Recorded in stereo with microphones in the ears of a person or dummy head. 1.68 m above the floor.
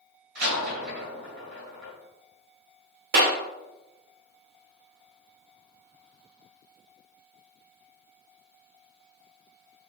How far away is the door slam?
About 2 m.